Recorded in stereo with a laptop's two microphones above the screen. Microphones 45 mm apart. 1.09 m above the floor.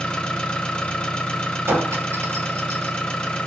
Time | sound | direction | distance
0.0 | an engine running | 20° left (ahead or behind) | 0.9 m
1.7 | a clink | 75° right (ahead or behind) | 1.3 m